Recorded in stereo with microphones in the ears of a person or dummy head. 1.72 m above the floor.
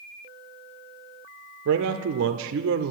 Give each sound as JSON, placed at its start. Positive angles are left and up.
{"t": 1.6, "sound": "a man speaking", "side_deg": -75, "distance_m": 0.6}